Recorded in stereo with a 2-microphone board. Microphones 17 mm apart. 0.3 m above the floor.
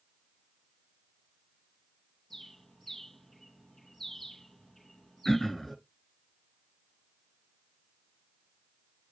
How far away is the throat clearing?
About 1.6 m.